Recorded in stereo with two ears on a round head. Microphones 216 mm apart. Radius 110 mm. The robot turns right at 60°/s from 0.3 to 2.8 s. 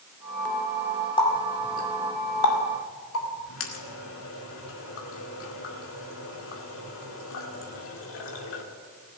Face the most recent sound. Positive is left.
turn(degrees=60)  # may be behind; listen again after turning